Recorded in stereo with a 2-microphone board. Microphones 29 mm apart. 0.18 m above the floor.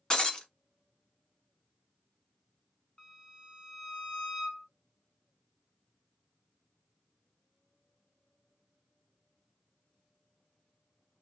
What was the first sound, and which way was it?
Breaking glass, 25° left (ahead or behind).